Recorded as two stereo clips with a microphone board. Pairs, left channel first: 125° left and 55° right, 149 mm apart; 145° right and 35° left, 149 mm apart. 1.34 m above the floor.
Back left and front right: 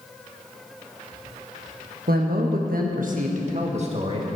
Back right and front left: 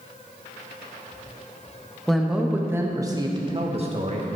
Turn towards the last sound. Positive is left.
turn(degrees=-5)